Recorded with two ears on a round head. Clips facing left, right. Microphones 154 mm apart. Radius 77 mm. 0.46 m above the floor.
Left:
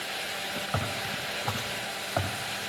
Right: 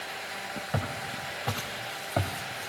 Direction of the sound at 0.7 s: 25° right (ahead or behind).